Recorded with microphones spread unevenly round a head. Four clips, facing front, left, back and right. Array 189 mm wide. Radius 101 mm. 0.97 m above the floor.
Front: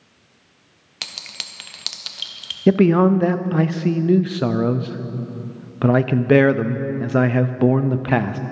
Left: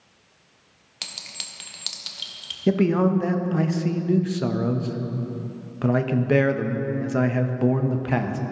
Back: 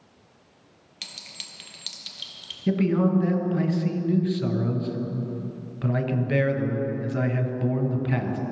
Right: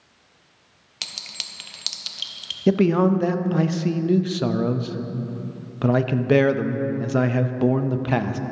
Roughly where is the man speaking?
Ahead.